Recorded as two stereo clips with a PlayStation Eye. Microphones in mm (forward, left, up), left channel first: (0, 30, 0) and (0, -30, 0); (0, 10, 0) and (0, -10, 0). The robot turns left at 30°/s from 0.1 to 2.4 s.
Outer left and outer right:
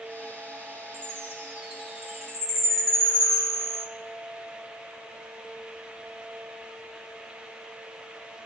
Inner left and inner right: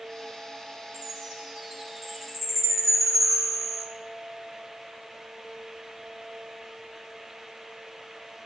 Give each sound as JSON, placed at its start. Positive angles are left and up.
{"t": 0.9, "sound": "a chime", "azimuth_deg": -145, "distance_m": 5.0}